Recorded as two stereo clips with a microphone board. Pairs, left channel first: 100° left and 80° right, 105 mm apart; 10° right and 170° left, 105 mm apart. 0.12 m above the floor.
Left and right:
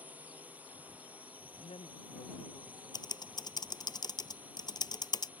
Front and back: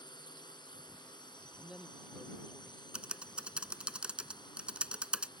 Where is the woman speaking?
85° left.